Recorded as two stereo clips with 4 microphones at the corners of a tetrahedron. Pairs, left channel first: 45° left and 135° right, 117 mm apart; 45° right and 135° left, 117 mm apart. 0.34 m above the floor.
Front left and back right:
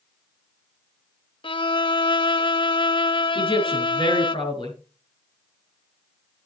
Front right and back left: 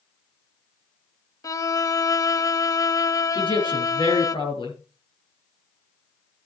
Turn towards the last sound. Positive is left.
turn(degrees=0)